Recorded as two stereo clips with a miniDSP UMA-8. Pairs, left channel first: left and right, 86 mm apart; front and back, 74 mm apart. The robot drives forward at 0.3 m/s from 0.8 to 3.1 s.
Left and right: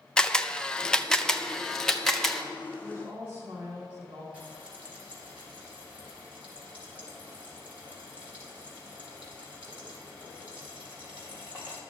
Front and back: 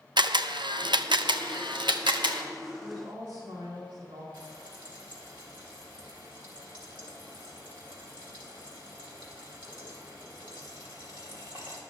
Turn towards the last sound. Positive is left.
turn(degrees=-165)